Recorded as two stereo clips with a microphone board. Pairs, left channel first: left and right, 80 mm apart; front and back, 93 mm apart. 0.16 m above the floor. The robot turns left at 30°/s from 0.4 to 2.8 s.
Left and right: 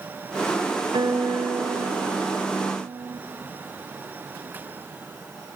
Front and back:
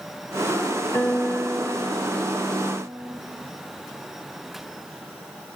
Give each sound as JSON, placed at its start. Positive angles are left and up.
{"t": 0.9, "sound": "a guitar", "azimuth_deg": -60, "distance_m": 5.0}